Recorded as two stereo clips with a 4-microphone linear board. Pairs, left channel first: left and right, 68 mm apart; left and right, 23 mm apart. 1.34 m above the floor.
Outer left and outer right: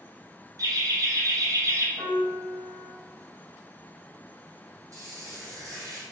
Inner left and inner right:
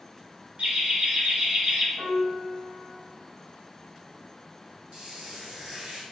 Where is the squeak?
50° right (ahead or behind), 1.3 m.